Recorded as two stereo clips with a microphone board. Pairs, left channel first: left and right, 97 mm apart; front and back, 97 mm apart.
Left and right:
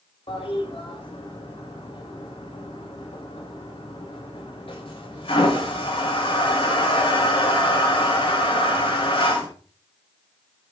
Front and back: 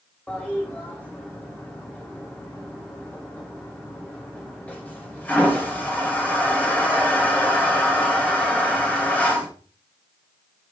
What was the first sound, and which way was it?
A toilet flushing, 75° left.